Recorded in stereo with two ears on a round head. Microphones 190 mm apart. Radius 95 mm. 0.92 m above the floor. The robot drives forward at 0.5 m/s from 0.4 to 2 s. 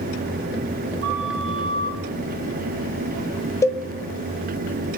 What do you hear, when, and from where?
1.0 s a flute: 60° right (ahead or behind), 2 m; by 2.0 s 50° right (ahead or behind), 2.5 m
3.6 s a cowbell: 15° left (ahead or behind), 0.5 m